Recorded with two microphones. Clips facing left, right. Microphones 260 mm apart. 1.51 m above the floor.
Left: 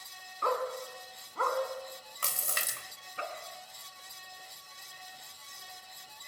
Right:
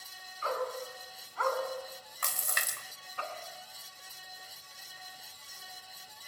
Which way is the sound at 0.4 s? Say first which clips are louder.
Left 2 dB; 60° left (ahead or behind).